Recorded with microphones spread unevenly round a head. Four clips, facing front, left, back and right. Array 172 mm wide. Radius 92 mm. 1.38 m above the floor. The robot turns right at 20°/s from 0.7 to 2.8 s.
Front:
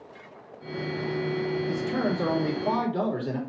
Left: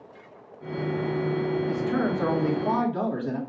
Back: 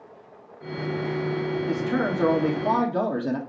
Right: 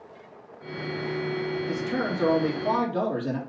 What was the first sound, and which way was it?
A man speaking, straight behind.